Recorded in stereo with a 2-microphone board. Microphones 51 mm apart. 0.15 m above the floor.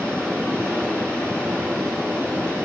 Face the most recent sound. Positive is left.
turn(degrees=-60)  # may be behind; listen again after turning